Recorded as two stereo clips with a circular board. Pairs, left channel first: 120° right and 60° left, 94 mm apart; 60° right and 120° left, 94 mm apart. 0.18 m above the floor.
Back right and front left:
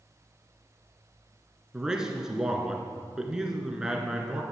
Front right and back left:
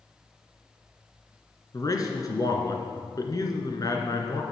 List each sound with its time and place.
1.7 s a man speaking: 20° right, 1.8 m